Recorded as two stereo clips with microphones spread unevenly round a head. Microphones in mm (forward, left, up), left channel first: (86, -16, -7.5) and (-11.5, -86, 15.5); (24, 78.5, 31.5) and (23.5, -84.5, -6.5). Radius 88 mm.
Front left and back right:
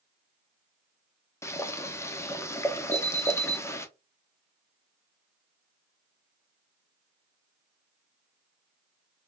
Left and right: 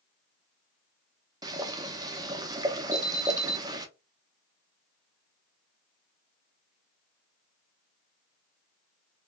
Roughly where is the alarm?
Ahead right.